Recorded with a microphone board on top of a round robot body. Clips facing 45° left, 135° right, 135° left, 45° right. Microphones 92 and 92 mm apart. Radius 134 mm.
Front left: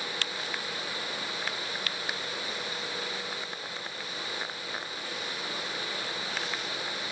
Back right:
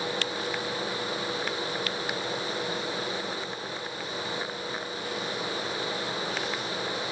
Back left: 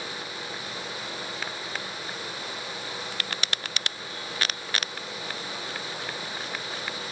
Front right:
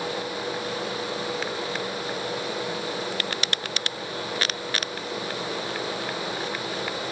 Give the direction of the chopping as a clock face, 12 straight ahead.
I don't hear chopping.